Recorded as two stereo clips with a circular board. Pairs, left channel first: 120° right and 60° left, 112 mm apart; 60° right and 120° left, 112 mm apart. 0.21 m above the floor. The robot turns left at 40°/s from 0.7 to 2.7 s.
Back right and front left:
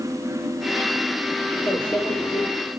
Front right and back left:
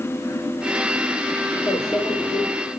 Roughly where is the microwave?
Ahead right.